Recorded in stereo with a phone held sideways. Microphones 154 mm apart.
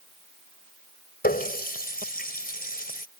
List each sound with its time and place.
1.2 s a running tap: 75° left (ahead or behind)